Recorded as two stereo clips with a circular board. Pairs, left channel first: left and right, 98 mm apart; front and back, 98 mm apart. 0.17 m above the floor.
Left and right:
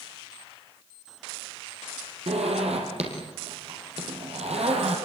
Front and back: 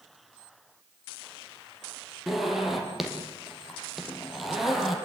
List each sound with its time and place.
2.3 s a zipper: 95° right, 5.5 m